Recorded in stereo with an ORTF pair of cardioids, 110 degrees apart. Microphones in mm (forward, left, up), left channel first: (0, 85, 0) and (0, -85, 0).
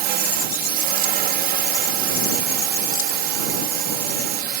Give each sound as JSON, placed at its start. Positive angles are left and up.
{"t": 0.0, "sound": "a drone", "azimuth_deg": -70}